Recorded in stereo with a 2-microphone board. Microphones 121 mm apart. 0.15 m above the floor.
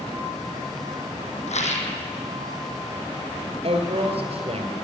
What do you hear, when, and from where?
1.5 s a rattle: 70° left (ahead or behind), 1.9 m
3.6 s a woman speaking: 55° right (ahead or behind), 2.5 m